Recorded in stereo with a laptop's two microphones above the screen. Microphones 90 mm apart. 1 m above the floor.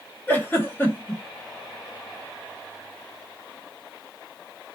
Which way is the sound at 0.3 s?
20° left (ahead or behind).